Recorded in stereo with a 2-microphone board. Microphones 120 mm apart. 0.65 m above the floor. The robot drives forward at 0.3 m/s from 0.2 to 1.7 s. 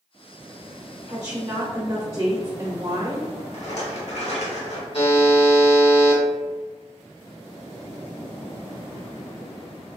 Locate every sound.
1.1 s a woman speaking: 25° right (ahead or behind), 0.8 m
3.5 s a rattle: 60° left (ahead or behind), 0.9 m
4.9 s a buzzer: 50° left (ahead or behind), 0.8 m